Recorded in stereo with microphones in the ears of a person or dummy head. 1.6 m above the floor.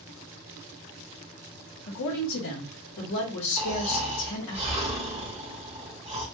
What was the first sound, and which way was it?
A woman speaking, 65° left (ahead or behind).